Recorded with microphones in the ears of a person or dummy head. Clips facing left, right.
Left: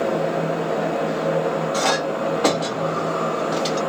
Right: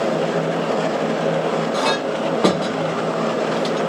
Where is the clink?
55° right (ahead or behind), 1.1 m.